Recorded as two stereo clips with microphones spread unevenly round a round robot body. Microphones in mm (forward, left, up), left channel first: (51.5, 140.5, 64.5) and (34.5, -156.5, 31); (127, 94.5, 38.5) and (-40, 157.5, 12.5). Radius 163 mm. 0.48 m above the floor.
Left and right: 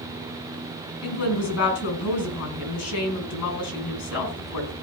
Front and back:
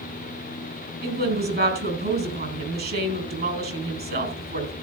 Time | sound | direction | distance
1.0 | a woman speaking | 130° left | 4.5 m